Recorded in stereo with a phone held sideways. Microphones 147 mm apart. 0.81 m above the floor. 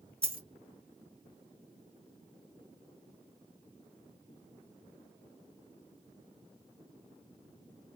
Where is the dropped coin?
40° right (ahead or behind), 1.6 m.